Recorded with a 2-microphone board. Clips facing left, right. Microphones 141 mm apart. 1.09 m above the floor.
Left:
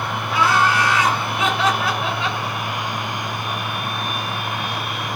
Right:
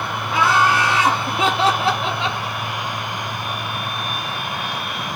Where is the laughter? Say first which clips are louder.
Right 1 dB; 15° right (ahead or behind), 0.7 m; by 2.4 s 20° right (ahead or behind), 0.7 m.